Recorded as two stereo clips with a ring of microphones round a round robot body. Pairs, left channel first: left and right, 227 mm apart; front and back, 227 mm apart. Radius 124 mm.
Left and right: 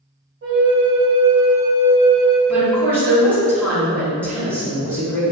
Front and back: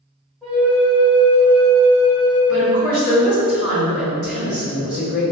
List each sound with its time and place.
0.4 s a flute: 90° right, 0.6 m
2.5 s a woman speaking: 5° left, 1.9 m